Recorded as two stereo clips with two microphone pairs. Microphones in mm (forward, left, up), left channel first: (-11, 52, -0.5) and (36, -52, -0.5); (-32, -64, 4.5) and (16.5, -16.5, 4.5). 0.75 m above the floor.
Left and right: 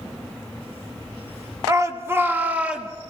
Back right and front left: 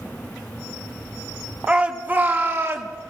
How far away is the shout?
About 1.2 m.